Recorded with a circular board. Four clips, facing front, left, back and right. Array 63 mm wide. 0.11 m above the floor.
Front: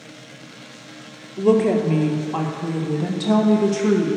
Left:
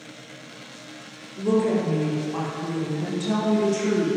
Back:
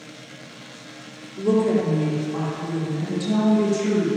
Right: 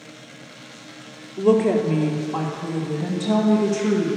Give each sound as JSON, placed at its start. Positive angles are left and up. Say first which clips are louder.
{"t": 1.4, "sound": "a woman speaking", "louder": "right 4 dB, front 3 dB", "azimuth_deg": -45, "distance_m": 2.0}